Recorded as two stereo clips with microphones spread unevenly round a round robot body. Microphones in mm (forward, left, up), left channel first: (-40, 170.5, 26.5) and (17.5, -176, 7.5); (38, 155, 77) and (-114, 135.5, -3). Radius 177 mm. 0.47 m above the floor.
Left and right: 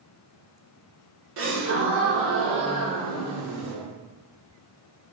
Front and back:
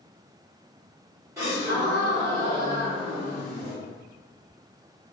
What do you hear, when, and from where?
1.4 s a gasp: 125° right, 1.4 m